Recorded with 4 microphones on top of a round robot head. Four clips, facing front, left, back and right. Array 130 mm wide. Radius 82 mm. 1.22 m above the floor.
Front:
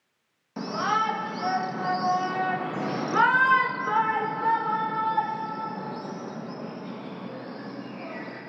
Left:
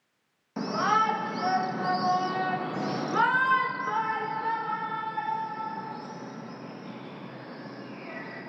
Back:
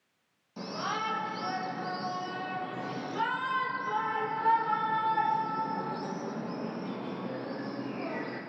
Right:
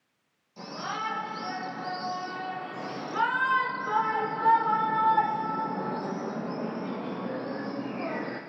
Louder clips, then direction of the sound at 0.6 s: Left 10 dB, front 8 dB; 55° left.